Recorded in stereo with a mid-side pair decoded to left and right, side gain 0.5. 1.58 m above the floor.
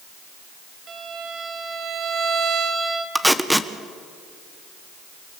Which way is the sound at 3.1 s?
Straight ahead.